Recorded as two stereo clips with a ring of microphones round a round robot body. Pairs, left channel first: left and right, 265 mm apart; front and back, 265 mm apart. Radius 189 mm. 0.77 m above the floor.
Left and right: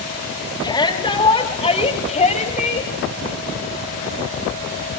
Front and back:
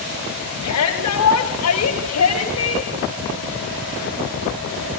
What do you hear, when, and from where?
0.6 s a shout: 15° left, 5.5 m; by 2.9 s 30° left, 4.5 m